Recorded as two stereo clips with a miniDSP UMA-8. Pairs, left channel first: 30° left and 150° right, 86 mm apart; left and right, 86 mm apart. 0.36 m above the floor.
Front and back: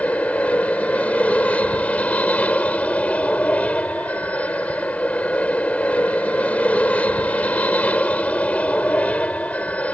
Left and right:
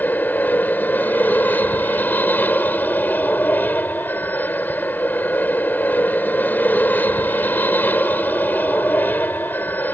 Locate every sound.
0.0 s an aircraft: 75° left